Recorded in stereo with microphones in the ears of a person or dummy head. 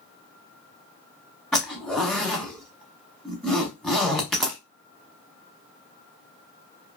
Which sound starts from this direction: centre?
A zipper, at 1.5 s.